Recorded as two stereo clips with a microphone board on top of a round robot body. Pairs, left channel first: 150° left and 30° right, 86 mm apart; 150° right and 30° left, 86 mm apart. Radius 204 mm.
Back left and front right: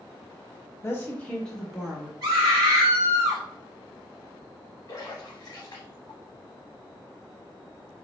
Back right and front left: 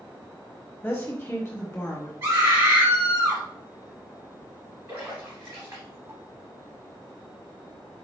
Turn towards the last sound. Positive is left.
turn(degrees=90)